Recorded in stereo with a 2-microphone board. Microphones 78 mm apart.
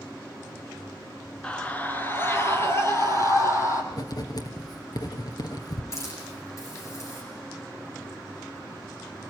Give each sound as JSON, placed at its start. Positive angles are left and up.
{"t": 1.4, "sound": "a scream", "side_deg": 10, "distance_m": 1.3}
{"t": 3.9, "sound": "writing", "side_deg": 55, "distance_m": 2.0}
{"t": 5.9, "sound": "a hiss", "side_deg": 40, "distance_m": 9.0}